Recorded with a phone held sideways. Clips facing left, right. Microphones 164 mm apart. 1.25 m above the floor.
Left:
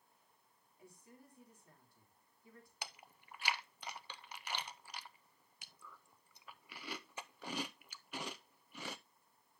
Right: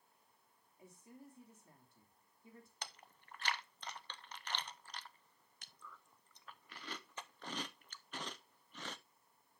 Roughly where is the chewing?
Centre.